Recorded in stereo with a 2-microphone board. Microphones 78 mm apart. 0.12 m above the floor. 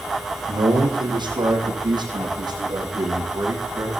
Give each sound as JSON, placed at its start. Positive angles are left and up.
{"t": 0.5, "sound": "a man speaking", "side_deg": -75, "distance_m": 5.5}